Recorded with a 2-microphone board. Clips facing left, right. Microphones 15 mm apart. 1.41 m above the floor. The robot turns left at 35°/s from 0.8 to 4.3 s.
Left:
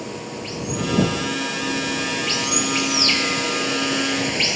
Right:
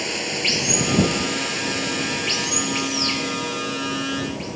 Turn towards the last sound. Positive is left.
turn(degrees=110)